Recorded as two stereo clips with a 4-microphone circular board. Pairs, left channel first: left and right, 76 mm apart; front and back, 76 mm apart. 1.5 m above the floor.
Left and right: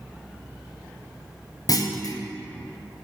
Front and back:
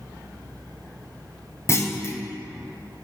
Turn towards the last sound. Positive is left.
turn(degrees=55)